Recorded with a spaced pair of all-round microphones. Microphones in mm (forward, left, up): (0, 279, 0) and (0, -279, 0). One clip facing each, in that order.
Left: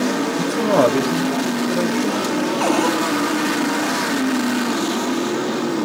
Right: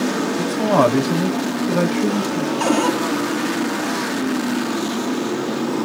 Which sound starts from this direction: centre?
A man speaking, at 0.4 s.